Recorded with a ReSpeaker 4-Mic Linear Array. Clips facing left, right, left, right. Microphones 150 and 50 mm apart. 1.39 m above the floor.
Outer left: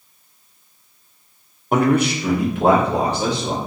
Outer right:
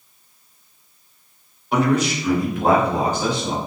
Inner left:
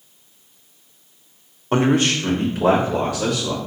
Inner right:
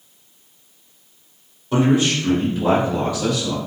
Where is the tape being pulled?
No tape being pulled in this recording.